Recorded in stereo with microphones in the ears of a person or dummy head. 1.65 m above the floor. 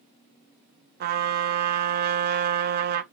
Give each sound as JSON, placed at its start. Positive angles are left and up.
{"t": 1.0, "sound": "a trumpet", "side_deg": -45, "distance_m": 0.6}